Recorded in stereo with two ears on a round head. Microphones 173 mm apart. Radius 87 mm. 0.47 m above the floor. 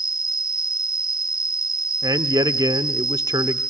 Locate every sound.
0.0 s an insect: 25° right (ahead or behind), 2.5 m
2.0 s a man speaking: 20° right (ahead or behind), 1.0 m